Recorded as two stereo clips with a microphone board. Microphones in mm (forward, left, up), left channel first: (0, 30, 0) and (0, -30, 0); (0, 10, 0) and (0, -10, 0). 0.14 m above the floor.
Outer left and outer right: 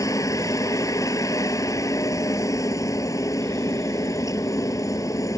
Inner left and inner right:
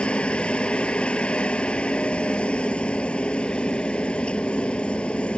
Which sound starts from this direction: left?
A helicopter, at 0.0 s.